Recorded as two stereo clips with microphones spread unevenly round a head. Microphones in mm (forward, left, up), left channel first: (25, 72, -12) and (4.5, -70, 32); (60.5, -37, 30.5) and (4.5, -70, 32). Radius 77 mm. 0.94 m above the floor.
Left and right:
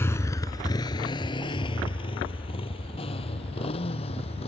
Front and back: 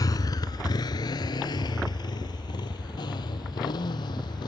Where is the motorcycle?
5° left; by 4.5 s 30° left.